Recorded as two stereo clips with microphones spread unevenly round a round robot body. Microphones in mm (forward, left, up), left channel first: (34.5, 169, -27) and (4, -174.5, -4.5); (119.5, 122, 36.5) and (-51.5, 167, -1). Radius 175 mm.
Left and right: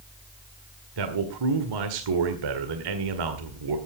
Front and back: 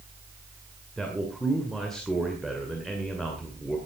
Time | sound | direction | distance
1.0 | a man speaking | 110° right | 1.8 m